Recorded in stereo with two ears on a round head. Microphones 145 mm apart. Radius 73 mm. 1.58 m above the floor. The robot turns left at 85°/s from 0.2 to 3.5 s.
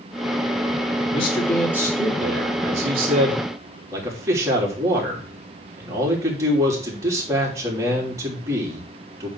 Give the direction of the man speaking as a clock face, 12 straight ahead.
11 o'clock.